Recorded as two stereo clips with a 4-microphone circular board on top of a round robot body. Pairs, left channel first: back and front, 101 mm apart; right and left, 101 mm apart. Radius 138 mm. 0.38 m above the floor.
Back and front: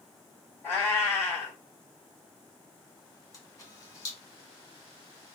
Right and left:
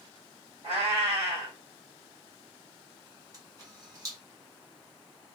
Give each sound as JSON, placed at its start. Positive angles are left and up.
{"t": 0.6, "sound": "a cat meowing", "azimuth_deg": 115, "distance_m": 2.0}
{"t": 3.3, "sound": "a camera shutter", "azimuth_deg": 135, "distance_m": 2.0}